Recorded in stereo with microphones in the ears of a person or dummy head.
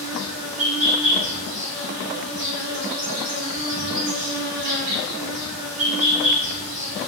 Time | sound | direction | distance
0.0 | an insect | 45° right (ahead or behind) | 1.0 m